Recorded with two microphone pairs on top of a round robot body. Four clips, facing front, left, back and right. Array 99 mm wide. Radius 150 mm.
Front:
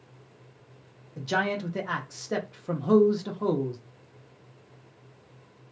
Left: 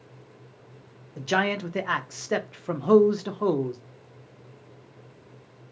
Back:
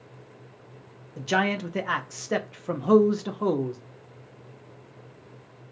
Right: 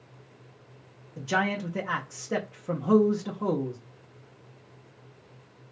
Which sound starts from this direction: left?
A man speaking, at 1.2 s.